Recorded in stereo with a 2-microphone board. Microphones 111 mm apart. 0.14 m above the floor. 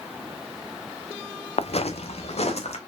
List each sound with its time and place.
1.6 s footsteps: 65° left (ahead or behind), 0.6 m